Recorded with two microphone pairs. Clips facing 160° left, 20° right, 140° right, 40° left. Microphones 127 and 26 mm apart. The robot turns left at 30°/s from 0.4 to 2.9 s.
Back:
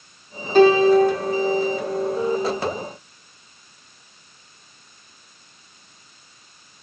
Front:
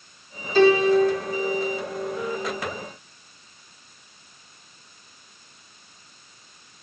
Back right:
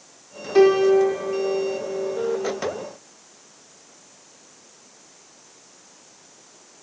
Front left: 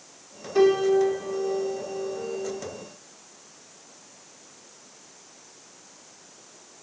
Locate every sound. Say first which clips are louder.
0.6 s a piano: back 3 dB, back right 4 dB; 170° right, 2.5 m; by 2.6 s 130° left, 2.5 m